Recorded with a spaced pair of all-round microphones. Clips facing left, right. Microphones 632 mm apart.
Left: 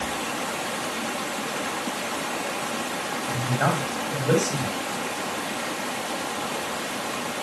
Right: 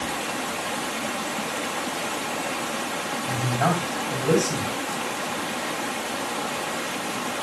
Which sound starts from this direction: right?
A man speaking, at 3.3 s.